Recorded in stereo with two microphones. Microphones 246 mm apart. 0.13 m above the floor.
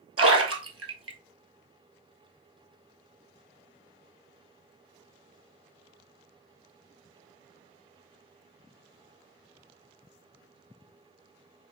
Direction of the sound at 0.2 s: 65° right (ahead or behind).